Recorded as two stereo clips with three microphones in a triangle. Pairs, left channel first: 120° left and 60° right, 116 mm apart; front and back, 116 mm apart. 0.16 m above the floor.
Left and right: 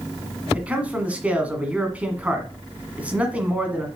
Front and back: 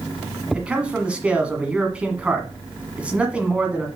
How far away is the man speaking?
About 1.5 m.